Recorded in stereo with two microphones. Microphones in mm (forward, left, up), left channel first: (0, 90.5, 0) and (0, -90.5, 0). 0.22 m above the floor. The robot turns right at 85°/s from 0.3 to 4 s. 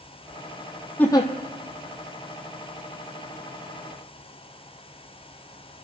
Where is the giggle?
5° left (ahead or behind), 1.2 m; by 1.3 s 35° left (ahead or behind), 1.2 m.